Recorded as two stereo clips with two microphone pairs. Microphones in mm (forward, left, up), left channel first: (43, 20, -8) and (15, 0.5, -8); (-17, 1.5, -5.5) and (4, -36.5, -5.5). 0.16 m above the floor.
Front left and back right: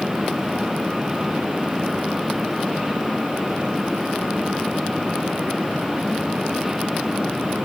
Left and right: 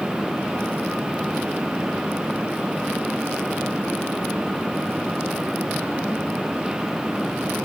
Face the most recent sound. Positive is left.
No sound to turn to.